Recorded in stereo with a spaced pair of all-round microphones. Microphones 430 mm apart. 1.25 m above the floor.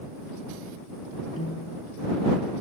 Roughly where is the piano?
Left.